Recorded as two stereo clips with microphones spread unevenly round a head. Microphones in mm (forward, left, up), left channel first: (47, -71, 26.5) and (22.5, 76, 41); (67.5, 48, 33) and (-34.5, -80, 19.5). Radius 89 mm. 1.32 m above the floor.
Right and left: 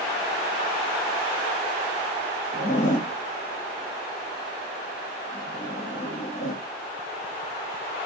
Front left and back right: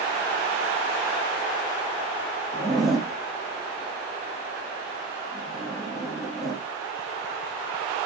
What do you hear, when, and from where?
2.5 s a zipper: 40° right, 0.8 m